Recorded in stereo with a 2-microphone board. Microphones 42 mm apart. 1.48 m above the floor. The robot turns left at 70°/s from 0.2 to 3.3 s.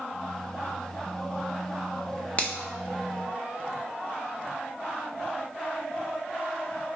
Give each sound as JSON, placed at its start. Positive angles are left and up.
{"t": 2.4, "sound": "a finger snap", "side_deg": 30, "distance_m": 0.7}